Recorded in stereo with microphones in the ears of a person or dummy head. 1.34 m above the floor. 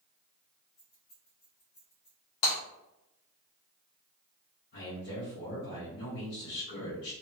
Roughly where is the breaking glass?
Left.